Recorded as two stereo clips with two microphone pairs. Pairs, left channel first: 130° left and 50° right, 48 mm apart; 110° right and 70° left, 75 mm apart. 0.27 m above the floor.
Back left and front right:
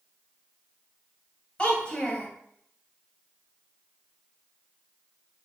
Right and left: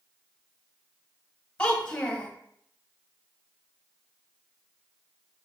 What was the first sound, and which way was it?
A child speaking, 175° right.